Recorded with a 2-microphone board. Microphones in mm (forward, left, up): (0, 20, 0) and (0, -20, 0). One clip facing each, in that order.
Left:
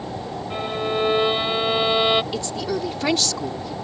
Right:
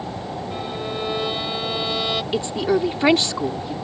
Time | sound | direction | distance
0.5 | a violin | 25° left (ahead or behind) | ?
2.3 | a woman speaking | 25° right (ahead or behind) | ?